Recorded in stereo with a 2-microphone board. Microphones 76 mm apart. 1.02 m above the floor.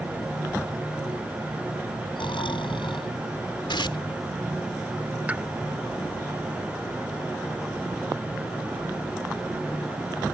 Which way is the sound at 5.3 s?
20° right (ahead or behind).